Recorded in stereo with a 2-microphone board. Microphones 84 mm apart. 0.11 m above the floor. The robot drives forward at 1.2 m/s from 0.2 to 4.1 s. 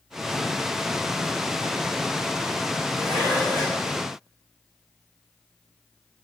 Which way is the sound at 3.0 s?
10° right (ahead or behind).